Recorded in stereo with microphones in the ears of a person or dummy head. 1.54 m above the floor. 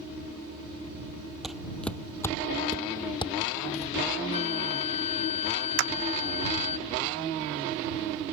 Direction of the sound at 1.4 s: Centre (ahead or behind).